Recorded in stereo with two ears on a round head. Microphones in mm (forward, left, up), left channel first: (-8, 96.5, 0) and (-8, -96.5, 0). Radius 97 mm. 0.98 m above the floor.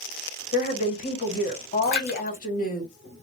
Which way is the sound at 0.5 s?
45° left (ahead or behind).